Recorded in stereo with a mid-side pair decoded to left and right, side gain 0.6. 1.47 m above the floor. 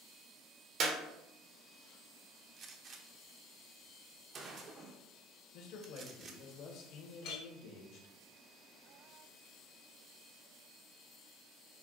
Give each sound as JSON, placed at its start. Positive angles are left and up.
{"t": 0.8, "sound": "a clap", "azimuth_deg": -55, "distance_m": 0.8}
{"t": 2.6, "sound": "a gunshot", "azimuth_deg": -45, "distance_m": 0.7}
{"t": 5.5, "sound": "a man speaking", "azimuth_deg": 65, "distance_m": 1.2}
{"t": 7.2, "sound": "a clink", "azimuth_deg": 70, "distance_m": 1.4}